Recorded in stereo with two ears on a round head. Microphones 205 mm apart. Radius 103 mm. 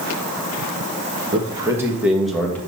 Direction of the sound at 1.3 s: 20° right (ahead or behind).